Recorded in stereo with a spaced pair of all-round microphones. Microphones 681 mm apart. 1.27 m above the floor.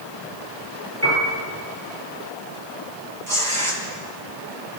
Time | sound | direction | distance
1.0 | a piano | 20° right (ahead or behind) | 9.5 m
3.3 | tearing paper | 80° right | 5.5 m